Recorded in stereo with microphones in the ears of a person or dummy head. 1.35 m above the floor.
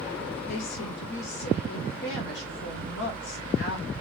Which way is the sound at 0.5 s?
75° left (ahead or behind).